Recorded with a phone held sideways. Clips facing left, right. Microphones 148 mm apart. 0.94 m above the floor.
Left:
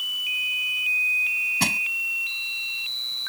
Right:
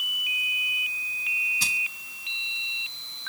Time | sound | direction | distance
1.6 | crushing | 65° left (ahead or behind) | ?